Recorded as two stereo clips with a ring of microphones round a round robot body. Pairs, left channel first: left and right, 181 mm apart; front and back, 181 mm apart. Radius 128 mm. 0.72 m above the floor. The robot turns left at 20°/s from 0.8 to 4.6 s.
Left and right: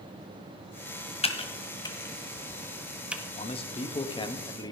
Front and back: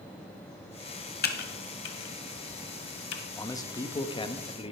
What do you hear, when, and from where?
1.2 s typing on a keyboard: 30° left, 1.4 m; by 3.2 s 10° right, 1.4 m
3.4 s a man speaking: 60° left, 0.9 m; by 4.7 s 35° left, 0.9 m